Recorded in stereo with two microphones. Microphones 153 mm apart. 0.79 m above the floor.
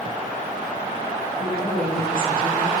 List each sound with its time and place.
1.4 s a woman speaking: 45° left (ahead or behind), 4 m; by 2.8 s 30° left (ahead or behind), 2.5 m